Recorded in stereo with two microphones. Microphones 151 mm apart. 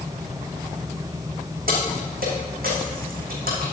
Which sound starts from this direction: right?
Keys jangling, at 1.7 s.